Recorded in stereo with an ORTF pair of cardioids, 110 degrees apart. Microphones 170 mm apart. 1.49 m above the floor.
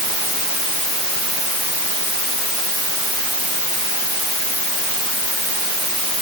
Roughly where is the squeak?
No squeak in this recording.